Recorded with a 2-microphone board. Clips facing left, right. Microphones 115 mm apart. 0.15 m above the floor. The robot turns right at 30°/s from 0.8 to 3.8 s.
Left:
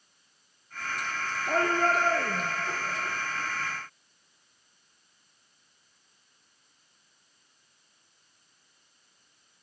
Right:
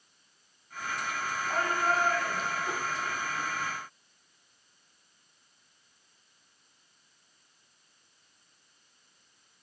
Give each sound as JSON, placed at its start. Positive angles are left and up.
{"t": 1.5, "sound": "a shout", "azimuth_deg": 85, "distance_m": 2.5}